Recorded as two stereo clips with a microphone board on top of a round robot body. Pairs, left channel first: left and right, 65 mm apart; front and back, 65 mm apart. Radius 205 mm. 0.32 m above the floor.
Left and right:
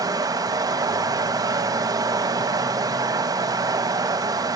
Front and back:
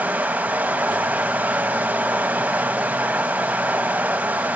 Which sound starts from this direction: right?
Running water, at 0.0 s.